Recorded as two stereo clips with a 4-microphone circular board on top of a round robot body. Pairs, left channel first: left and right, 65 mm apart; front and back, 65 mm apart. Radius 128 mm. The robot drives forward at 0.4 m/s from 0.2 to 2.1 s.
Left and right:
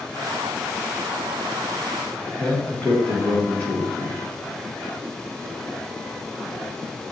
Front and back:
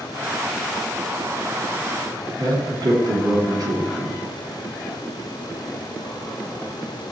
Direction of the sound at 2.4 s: 155° left.